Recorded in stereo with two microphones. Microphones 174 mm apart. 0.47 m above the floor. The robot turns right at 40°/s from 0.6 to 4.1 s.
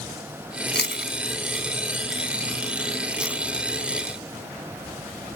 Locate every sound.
0.7 s chewing: 75° left (ahead or behind); by 3.4 s 15° right (ahead or behind)